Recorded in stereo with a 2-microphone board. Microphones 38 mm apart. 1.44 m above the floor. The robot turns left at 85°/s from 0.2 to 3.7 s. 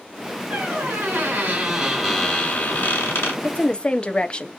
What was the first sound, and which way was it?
A squeak, 50° right.